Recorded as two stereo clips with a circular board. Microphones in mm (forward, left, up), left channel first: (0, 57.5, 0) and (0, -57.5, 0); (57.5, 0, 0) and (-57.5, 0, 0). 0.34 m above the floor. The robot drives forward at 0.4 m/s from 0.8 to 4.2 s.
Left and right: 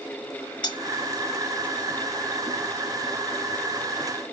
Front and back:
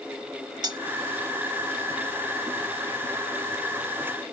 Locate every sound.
0.6 s cutlery clinking: 130° left